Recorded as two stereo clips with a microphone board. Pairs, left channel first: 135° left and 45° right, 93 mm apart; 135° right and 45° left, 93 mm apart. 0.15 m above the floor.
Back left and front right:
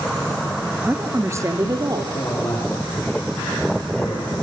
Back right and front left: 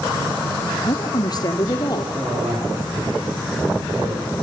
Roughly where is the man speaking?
Left.